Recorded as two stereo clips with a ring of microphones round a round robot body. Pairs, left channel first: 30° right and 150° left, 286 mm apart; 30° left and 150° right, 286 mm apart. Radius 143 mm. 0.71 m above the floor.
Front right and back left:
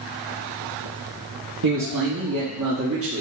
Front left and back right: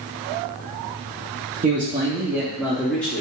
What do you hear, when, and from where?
1.6 s a man speaking: 150° left, 1.5 m; by 3.2 s 110° left, 1.4 m